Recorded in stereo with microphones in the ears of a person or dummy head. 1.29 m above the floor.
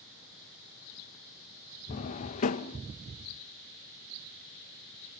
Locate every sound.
1.9 s a drawer: 45° left (ahead or behind), 0.7 m